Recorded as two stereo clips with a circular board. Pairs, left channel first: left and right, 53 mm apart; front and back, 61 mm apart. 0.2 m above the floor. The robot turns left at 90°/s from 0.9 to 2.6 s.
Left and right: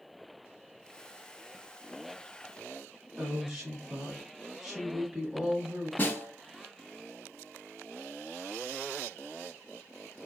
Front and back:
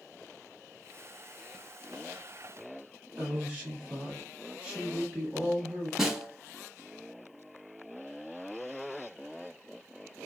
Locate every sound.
3.2 s a woman speaking: 155° right, 1.3 m
6.0 s a snare drum: 100° left, 0.8 m